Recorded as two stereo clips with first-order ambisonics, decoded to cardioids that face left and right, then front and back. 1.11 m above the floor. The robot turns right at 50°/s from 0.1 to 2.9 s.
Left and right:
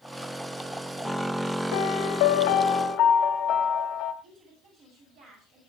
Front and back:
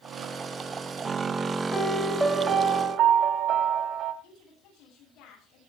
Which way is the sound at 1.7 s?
80° left.